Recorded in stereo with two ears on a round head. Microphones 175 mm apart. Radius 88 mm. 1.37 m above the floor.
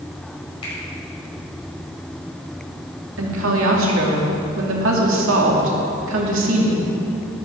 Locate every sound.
0.6 s a finger snap: 25° left (ahead or behind), 5.5 m
3.2 s a woman speaking: 75° right (ahead or behind), 2.5 m